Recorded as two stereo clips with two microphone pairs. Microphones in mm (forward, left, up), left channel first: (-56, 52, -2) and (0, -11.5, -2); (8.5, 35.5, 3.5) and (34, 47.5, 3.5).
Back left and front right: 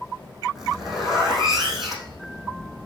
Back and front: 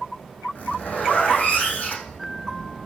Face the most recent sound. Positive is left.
turn(degrees=-135)